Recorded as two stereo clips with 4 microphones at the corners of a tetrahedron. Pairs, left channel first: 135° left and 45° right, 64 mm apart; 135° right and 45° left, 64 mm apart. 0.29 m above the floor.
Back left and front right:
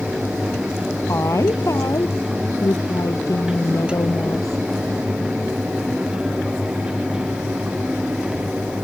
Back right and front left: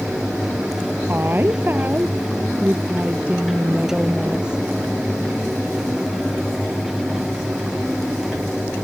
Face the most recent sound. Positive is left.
turn(degrees=120)